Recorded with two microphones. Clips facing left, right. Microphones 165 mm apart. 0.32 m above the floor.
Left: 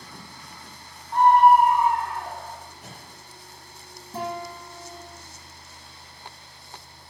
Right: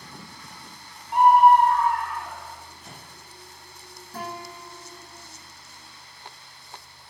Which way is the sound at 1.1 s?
20° right (ahead or behind).